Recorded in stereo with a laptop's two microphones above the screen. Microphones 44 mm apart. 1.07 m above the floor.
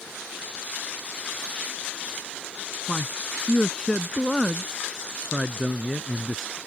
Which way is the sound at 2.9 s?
25° left (ahead or behind).